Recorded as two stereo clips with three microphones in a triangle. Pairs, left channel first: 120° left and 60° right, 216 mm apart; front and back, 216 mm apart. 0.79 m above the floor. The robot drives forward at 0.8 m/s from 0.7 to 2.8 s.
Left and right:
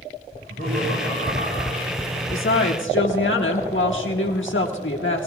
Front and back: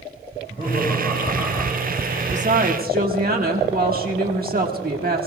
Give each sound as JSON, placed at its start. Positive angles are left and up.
{"t": 0.3, "sound": "laughter", "azimuth_deg": -60, "distance_m": 5.0}
{"t": 2.3, "sound": "a woman speaking", "azimuth_deg": 125, "distance_m": 1.3}